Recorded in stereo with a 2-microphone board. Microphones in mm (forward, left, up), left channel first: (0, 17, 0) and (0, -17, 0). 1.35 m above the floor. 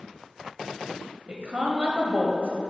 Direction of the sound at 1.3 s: 40° right (ahead or behind).